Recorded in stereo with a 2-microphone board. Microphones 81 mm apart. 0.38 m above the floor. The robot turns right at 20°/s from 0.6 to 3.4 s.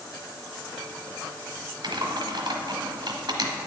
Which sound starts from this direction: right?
Typing on a keyboard, at 1.8 s.